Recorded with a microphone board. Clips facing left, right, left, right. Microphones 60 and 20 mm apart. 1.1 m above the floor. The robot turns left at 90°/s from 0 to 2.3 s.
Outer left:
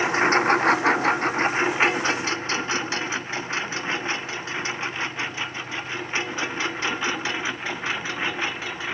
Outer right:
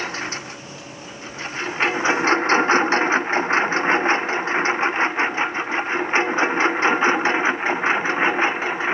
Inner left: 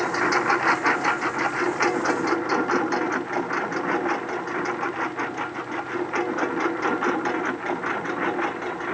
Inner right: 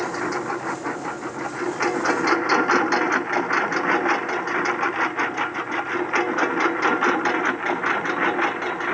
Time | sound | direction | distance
0.0 | a lawn mower | 15° left (ahead or behind) | ?